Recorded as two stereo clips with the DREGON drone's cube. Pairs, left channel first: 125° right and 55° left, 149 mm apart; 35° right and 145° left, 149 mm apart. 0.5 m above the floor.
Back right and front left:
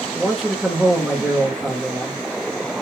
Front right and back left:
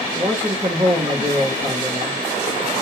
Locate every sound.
0.1 s a man speaking: 145° left, 1.0 m